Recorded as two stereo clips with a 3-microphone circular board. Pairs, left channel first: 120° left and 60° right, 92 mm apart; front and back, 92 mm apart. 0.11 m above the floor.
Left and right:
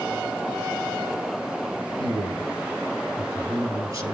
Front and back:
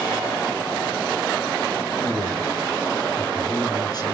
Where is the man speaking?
25° right, 2.5 m.